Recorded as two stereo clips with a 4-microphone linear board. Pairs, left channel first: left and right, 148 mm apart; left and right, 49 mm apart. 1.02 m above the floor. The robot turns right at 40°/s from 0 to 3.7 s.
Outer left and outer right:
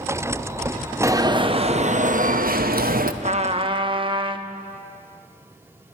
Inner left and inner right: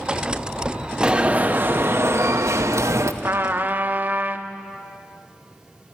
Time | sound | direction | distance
1.0 | an alarm | 160° right | 0.8 m
3.2 | a trumpet | 50° right (ahead or behind) | 0.8 m